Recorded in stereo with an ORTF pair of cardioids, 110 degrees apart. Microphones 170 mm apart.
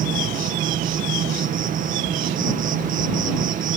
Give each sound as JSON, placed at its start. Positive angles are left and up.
{"t": 0.0, "sound": "an insect", "azimuth_deg": -55}